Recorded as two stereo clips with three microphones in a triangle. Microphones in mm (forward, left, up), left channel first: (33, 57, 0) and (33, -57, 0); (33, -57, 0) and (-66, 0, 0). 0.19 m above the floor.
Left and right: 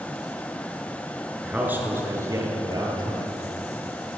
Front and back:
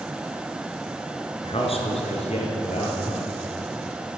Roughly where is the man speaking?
Ahead.